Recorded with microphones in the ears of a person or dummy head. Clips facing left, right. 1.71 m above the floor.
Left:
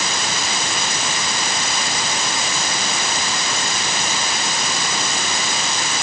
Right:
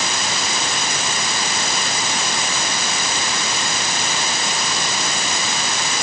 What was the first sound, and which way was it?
Only background noise.